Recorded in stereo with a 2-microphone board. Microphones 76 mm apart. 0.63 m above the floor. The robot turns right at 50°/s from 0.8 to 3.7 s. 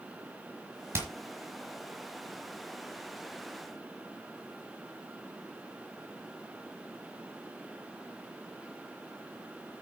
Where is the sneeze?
I don't hear a sneeze.